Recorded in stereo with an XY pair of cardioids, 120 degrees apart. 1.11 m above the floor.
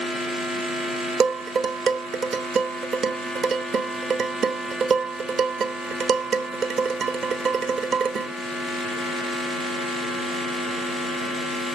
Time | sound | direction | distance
1.2 | dishes clattering | 45° right | 0.8 m